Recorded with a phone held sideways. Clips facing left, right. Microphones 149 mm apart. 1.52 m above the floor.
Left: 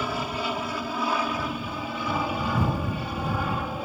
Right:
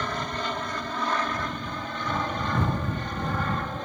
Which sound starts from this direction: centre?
An aircraft, at 0.0 s.